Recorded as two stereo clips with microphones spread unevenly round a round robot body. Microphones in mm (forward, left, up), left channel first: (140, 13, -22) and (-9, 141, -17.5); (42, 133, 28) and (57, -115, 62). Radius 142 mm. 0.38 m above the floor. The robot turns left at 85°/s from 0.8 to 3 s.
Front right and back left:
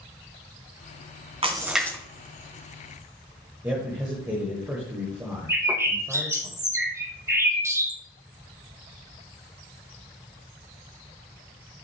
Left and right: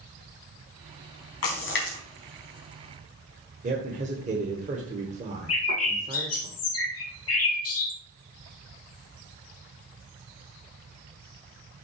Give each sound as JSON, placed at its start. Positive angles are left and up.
{"t": 1.4, "sound": "a splash", "azimuth_deg": 80, "distance_m": 3.0}
{"t": 3.6, "sound": "a man speaking", "azimuth_deg": -145, "distance_m": 1.3}
{"t": 5.5, "sound": "a bird", "azimuth_deg": 65, "distance_m": 2.0}